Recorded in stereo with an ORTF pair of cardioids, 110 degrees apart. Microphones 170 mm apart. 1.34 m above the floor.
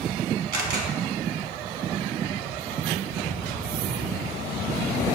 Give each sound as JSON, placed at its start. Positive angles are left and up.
{"t": 0.5, "sound": "a camera shutter", "azimuth_deg": -70, "distance_m": 1.2}